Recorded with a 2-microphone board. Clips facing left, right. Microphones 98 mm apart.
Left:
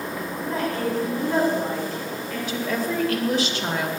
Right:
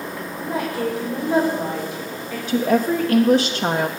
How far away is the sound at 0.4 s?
About 6 m.